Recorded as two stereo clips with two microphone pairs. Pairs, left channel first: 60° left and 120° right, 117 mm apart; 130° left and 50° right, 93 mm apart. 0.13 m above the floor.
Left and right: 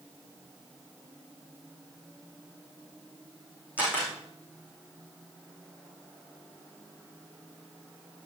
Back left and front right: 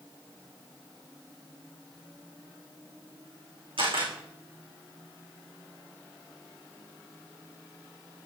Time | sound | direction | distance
3.8 | a camera shutter | 45° right | 5 m